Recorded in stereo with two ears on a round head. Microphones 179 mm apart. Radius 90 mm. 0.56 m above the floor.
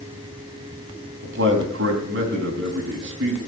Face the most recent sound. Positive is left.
turn(degrees=-65)  # may be behind; listen again after turning